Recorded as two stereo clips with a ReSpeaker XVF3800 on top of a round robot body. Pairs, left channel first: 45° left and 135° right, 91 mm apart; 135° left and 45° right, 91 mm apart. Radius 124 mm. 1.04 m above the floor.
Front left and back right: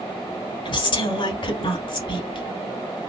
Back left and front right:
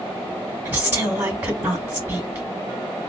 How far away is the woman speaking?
About 2.5 m.